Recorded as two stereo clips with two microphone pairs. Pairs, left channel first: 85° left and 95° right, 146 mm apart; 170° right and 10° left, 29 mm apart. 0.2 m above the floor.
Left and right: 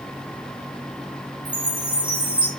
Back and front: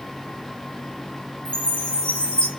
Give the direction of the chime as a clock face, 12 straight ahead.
6 o'clock.